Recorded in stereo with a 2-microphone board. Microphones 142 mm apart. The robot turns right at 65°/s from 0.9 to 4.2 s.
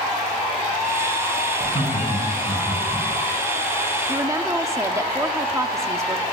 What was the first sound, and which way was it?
Laughter, 80° left.